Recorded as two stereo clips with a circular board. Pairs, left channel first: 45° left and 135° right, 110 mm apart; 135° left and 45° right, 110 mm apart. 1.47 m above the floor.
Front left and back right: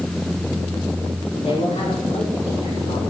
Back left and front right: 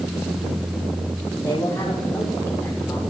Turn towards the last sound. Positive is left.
turn(degrees=60)